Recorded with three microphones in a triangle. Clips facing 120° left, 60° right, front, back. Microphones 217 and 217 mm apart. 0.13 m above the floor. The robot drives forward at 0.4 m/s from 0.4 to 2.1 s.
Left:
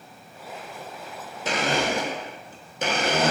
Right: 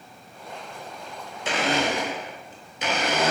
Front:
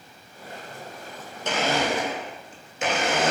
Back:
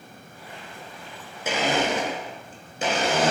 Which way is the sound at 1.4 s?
105° left.